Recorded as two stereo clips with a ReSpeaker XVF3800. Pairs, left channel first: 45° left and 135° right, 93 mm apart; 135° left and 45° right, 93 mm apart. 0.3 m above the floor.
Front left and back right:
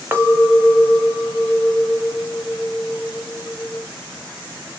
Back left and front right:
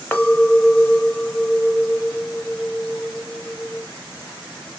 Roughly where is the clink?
Behind.